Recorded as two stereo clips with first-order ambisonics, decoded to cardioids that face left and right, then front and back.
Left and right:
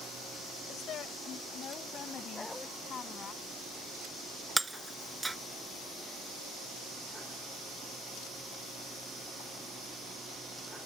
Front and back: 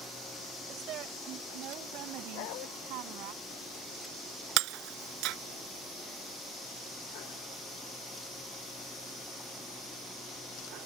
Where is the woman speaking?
140° left; by 3.3 s 155° left.